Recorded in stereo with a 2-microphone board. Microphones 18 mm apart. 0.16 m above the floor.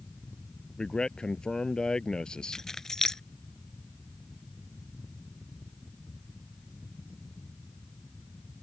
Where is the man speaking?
50° left (ahead or behind).